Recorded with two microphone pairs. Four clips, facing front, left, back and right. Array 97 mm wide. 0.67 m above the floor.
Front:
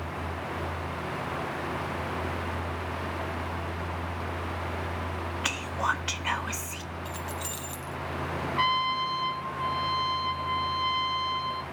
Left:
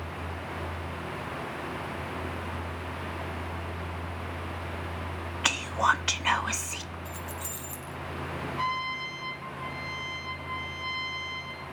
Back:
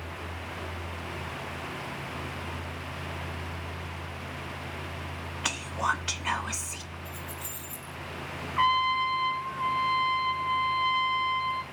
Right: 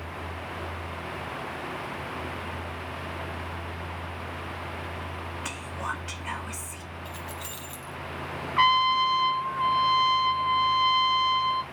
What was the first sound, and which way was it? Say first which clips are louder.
Whispering: left 11 dB, back 1 dB; 90° left.